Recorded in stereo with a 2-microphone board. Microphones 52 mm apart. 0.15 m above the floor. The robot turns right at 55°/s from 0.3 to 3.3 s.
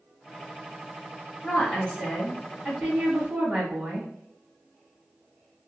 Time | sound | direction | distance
1.4 | a woman speaking | 30° left (ahead or behind) | 1.6 m